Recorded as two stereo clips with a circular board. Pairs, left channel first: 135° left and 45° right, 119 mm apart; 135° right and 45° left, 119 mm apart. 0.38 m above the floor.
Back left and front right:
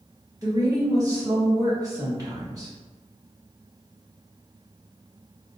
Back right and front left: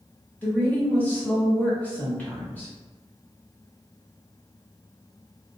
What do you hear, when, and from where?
0.4 s a woman speaking: 70° right, 1.0 m